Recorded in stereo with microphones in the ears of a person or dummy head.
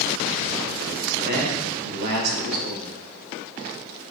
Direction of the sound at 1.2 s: 60° right (ahead or behind).